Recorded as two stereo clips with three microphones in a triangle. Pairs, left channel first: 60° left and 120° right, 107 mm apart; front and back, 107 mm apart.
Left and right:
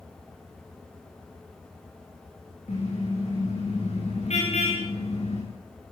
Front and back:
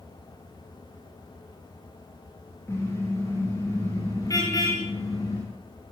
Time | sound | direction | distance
2.7 | a car horn | 65° left | 9.5 m